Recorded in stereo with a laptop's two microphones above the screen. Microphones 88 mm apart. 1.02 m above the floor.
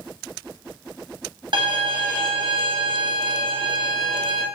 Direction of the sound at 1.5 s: 60° right (ahead or behind).